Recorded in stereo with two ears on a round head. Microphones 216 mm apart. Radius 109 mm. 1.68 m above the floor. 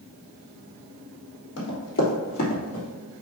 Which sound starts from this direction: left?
Running footsteps, at 1.6 s.